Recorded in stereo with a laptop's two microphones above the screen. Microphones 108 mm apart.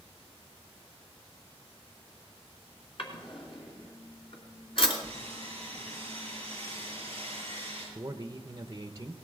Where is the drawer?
55° left (ahead or behind), 3 m.